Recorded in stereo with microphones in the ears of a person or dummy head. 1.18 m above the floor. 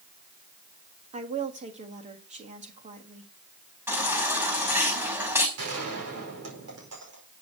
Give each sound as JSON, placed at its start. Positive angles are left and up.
{"t": 1.1, "sound": "a woman speaking", "side_deg": -35, "distance_m": 1.7}
{"t": 3.9, "sound": "a baby crying", "side_deg": -10, "distance_m": 6.0}
{"t": 5.6, "sound": "a gunshot", "side_deg": -75, "distance_m": 5.0}